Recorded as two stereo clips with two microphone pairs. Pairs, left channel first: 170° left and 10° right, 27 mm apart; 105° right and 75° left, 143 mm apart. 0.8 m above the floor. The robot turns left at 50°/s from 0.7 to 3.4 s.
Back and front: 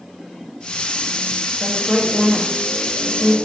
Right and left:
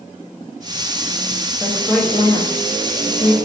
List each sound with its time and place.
1.6 s a woman speaking: straight ahead, 0.7 m; by 3.3 s 90° right, 0.7 m